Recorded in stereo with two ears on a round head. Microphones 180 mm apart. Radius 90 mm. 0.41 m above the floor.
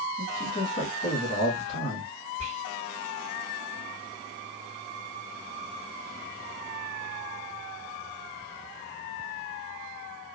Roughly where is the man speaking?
Left.